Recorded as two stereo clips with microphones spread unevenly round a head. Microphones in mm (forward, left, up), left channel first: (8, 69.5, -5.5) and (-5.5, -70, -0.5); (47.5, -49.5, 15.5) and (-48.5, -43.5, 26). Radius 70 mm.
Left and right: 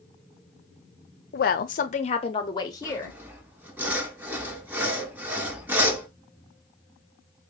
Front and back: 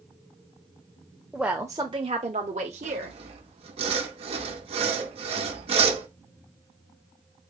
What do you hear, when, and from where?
1.3 s a woman speaking: 95° left, 0.6 m; by 3.2 s 160° left, 1.0 m
2.8 s sawing: 170° right, 0.8 m